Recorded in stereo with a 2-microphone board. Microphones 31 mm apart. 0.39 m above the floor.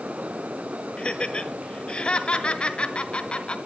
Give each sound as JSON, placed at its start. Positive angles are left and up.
{"t": 1.0, "sound": "laughter", "side_deg": 40, "distance_m": 1.4}